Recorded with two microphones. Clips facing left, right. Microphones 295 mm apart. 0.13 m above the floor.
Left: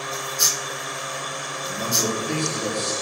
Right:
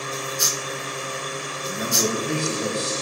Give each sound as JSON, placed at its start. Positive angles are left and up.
{"t": 1.7, "sound": "a man speaking", "side_deg": -20, "distance_m": 4.5}